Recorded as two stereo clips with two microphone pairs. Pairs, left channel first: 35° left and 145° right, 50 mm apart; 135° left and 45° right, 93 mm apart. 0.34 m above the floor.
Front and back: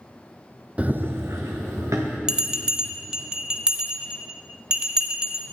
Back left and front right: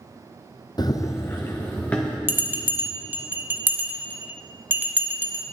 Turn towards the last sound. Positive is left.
turn(degrees=-90)